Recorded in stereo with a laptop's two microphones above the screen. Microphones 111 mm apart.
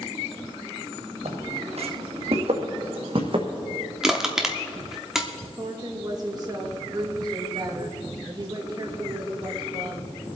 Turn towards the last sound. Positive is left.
turn(degrees=-35)  # may be behind; listen again after turning